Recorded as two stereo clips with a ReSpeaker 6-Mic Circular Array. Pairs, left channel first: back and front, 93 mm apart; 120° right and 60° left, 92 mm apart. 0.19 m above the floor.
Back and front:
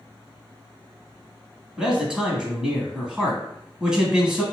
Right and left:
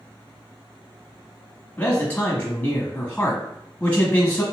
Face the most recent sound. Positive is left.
turn(degrees=-70)